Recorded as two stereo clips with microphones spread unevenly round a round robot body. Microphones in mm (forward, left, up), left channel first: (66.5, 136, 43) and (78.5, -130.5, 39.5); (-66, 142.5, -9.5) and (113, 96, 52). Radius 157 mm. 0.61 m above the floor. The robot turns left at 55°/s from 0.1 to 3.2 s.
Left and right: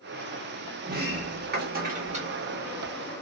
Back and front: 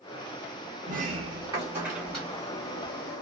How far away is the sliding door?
About 0.8 m.